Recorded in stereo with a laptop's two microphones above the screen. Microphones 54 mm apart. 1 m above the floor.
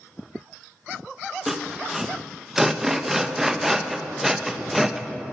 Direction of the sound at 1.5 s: 5° right (ahead or behind).